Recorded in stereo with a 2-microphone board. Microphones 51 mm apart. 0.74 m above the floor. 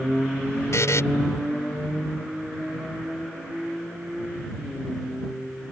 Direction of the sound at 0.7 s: 75° left (ahead or behind).